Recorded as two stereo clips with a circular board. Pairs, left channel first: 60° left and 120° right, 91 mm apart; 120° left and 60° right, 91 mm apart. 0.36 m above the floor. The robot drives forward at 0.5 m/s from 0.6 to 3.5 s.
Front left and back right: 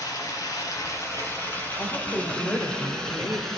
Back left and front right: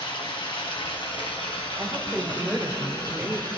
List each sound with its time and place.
0.0 s running water: 105° left, 1.3 m; by 3.6 s 145° left, 2 m
1.8 s a woman speaking: 10° left, 1.6 m; by 3.5 s 25° left, 1.0 m